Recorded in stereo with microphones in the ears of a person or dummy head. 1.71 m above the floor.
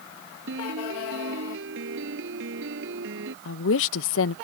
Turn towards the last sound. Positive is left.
turn(degrees=80)